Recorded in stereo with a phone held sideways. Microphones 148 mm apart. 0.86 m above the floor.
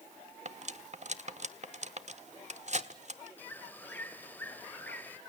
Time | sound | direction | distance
0.5 | cutlery clinking | 50° right (ahead or behind) | 1.2 m
3.4 | a bird | 10° left (ahead or behind) | 2 m